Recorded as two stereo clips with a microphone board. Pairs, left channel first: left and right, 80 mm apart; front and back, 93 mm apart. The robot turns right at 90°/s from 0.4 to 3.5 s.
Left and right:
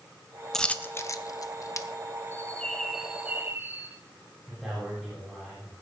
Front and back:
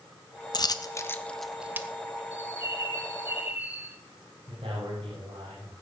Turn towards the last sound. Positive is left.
turn(degrees=-175)